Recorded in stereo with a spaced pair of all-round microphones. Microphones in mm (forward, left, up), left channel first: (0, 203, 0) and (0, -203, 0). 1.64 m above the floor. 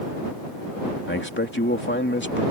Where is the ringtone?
No ringtone in this recording.